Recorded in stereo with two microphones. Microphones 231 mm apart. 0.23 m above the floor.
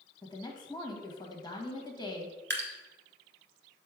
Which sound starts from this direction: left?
A woman speaking, at 0.2 s.